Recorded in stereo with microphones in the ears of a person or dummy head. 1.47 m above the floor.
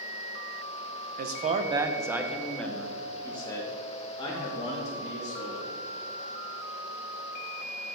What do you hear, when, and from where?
1.2 s a man speaking: 50° right (ahead or behind), 0.7 m; by 5.7 s 30° left (ahead or behind), 2.5 m